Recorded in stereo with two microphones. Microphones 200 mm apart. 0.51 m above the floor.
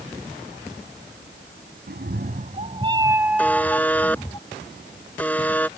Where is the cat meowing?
60° right (ahead or behind); by 4.4 s 20° left (ahead or behind).